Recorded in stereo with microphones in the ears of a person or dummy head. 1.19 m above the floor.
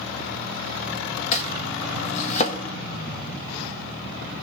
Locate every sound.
1.3 s chopping: 45° left (ahead or behind), 0.7 m